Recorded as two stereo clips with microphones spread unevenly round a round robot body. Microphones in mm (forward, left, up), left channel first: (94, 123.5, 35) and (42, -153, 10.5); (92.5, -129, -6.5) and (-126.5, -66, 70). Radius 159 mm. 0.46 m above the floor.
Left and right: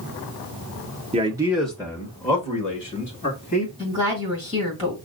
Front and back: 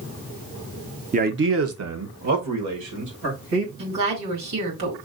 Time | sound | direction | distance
1.1 | a man speaking | 130° right | 0.8 m
3.8 | a woman speaking | 155° left | 2.5 m